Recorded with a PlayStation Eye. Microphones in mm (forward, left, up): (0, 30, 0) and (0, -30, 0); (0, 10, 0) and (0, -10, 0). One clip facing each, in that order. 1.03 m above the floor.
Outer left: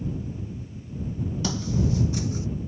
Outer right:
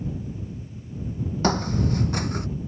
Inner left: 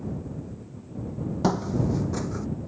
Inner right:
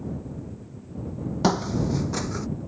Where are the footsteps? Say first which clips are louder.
Outer right 4 dB, inner right 2 dB; 50° right (ahead or behind); by 2.5 s 60° right (ahead or behind).